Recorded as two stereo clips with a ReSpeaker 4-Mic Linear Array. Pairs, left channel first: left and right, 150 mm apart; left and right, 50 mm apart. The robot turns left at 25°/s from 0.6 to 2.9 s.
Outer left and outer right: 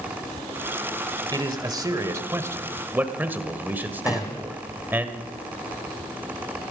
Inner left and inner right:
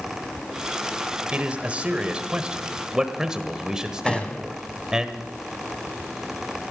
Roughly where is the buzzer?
I don't hear a buzzer.